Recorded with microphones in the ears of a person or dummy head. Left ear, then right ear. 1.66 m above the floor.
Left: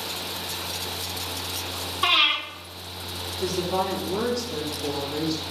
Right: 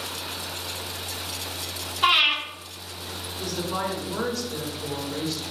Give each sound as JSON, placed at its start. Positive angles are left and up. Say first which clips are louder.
{"t": 2.0, "sound": "breathing", "louder": "right 1 dB", "side_deg": -25, "distance_m": 1.2}
{"t": 3.4, "sound": "a woman speaking", "louder": "left 3 dB", "side_deg": -30, "distance_m": 1.4}